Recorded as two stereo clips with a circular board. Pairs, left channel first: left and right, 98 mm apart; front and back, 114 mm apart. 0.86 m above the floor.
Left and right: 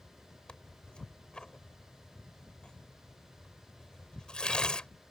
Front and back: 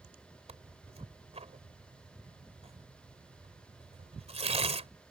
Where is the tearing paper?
170° left.